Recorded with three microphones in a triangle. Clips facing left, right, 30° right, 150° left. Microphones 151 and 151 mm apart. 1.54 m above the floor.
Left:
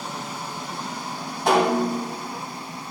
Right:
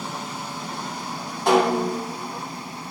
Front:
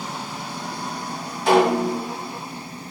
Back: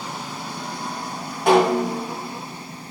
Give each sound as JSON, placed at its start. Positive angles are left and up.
{"t": 1.5, "sound": "a snare drum", "azimuth_deg": 175, "distance_m": 4.5}